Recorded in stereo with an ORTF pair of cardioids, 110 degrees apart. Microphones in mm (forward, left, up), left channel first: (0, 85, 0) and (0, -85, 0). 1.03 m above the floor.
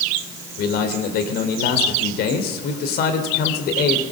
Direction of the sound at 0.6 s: 70° left.